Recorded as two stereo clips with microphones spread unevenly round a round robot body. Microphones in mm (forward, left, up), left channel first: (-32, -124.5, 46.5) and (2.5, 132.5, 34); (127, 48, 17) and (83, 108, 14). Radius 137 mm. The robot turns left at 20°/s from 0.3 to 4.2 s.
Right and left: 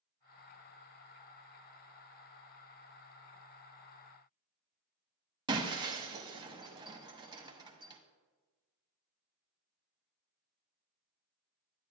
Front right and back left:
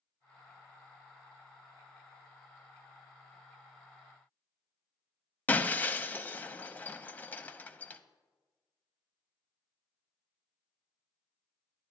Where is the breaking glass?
10° left, 0.6 m.